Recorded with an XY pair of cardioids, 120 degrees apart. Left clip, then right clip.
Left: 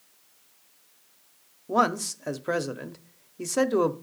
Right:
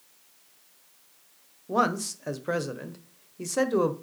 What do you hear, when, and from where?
1.7 s a man speaking: 15° left, 0.7 m